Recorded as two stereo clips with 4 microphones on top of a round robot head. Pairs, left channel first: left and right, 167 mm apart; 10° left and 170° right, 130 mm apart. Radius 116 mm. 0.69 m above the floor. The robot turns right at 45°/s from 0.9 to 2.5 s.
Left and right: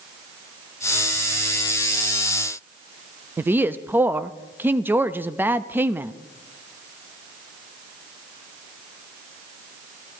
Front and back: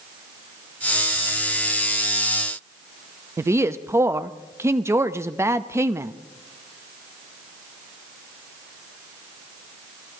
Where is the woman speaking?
145° right, 0.6 m.